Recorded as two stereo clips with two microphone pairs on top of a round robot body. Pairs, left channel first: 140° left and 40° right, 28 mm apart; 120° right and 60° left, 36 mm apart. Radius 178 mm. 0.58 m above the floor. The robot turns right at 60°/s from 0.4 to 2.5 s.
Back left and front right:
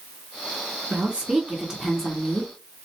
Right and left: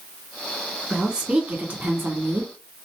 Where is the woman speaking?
15° right, 2 m; by 2.5 s 80° left, 2 m.